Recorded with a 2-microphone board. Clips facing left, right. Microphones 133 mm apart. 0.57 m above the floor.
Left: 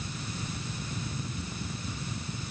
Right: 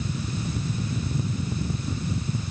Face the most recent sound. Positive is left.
No sound to turn to.